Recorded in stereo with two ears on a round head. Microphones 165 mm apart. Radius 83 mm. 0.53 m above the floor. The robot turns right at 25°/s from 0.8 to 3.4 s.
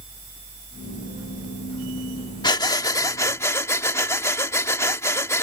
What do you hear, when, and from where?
2.4 s breathing: 25° left (ahead or behind); by 5.4 s 15° left (ahead or behind)